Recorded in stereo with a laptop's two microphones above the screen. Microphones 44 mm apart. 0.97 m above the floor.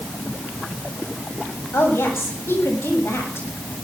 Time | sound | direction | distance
1.7 | a woman speaking | 85° left | 7.5 m